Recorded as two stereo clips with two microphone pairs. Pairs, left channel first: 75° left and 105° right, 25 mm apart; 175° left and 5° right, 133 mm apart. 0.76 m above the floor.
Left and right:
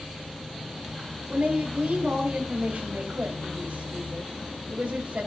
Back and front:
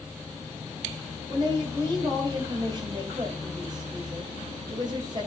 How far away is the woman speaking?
About 3 m.